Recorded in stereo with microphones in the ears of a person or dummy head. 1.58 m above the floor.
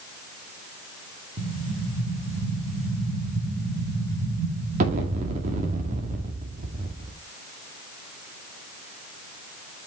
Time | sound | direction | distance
1.4 | an explosion | 40° right (ahead or behind) | 1.8 m